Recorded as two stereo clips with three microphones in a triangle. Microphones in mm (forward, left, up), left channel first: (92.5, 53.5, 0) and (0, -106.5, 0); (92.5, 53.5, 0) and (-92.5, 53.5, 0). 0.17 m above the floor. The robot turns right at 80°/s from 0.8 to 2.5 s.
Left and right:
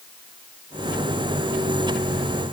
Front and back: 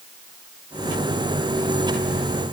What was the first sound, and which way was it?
Only background noise.